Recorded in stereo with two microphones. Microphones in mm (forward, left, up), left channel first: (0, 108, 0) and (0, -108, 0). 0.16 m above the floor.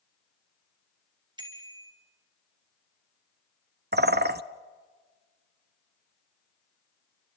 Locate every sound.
1.4 s a bicycle bell: 20° right (ahead or behind), 2.5 m
3.9 s a bird: 50° right (ahead or behind), 0.6 m